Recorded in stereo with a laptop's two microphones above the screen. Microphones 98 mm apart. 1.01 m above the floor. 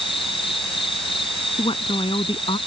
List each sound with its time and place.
0.0 s an insect: 70° left (ahead or behind)
1.6 s a woman speaking: 65° left (ahead or behind)